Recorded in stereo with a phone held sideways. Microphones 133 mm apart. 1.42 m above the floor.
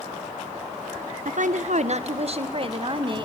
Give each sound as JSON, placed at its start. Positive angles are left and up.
{"t": 1.2, "sound": "a woman speaking", "side_deg": -70, "distance_m": 1.0}